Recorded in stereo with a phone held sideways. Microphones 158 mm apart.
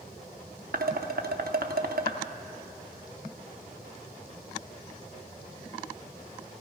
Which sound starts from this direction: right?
Dishes clattering, at 0.7 s.